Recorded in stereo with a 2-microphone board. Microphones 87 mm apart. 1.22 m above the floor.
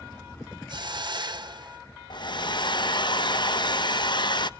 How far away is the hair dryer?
About 0.9 m.